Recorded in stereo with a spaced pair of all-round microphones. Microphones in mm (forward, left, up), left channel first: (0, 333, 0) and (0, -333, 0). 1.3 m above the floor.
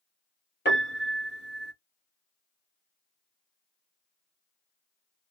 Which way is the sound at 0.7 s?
15° left (ahead or behind).